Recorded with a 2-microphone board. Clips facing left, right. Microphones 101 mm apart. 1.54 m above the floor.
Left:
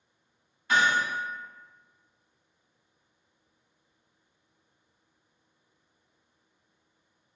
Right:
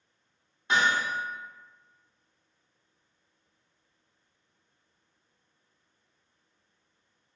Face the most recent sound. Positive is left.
turn(degrees=-25)  # may be behind; listen again after turning